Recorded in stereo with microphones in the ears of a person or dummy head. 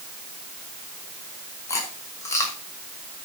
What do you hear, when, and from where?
1.7 s chewing: 10° left (ahead or behind), 1.8 m